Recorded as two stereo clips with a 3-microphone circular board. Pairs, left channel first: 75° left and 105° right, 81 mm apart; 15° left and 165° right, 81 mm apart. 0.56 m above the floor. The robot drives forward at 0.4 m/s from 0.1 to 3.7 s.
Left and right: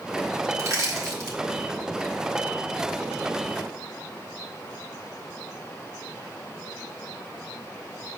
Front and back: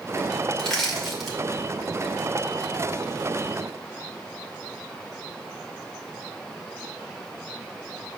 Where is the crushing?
65° right, 2 m; by 1.4 s 75° right, 2 m.